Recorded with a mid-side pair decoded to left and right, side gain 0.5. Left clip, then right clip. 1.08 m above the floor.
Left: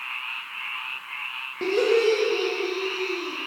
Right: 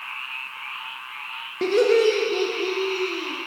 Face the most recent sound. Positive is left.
turn(degrees=-35)